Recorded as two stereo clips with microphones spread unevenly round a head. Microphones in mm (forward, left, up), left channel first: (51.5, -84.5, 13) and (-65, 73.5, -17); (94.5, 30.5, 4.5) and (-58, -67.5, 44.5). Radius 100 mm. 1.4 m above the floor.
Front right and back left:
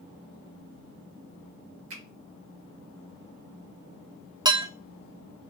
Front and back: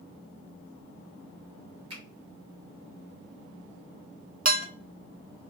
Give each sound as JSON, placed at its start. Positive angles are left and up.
{"t": 1.9, "sound": "a finger snap", "azimuth_deg": 150, "distance_m": 1.9}
{"t": 4.5, "sound": "dishes clattering", "azimuth_deg": -160, "distance_m": 0.8}